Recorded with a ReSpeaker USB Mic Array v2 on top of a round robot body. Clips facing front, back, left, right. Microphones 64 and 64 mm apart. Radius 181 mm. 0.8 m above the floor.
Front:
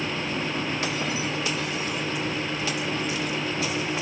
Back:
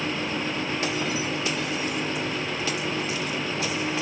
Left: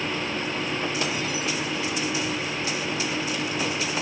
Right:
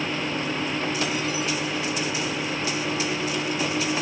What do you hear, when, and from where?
Only background noise.